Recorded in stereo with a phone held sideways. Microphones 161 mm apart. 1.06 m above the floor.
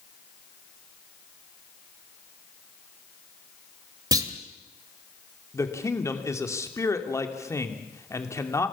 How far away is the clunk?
About 1.7 m.